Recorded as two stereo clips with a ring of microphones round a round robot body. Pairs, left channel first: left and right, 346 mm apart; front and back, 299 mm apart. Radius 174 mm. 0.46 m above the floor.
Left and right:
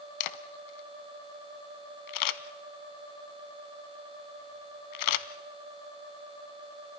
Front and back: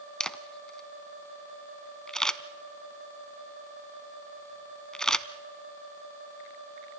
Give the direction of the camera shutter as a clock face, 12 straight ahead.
9 o'clock.